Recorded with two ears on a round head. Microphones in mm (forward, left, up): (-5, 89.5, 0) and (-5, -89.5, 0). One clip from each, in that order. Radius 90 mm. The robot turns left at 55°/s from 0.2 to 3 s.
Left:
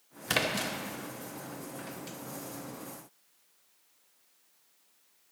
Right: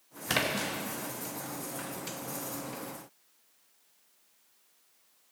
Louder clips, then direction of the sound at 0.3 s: Even; 5° left (ahead or behind).